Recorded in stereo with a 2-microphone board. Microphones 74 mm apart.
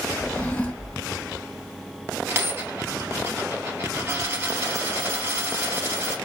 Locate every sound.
0.2 s a drawer: 15° left (ahead or behind), 1.0 m
2.3 s a dropped coin: 35° right (ahead or behind), 2 m